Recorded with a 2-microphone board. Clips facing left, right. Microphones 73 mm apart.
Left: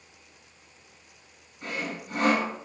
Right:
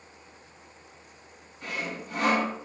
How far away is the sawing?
About 1.3 m.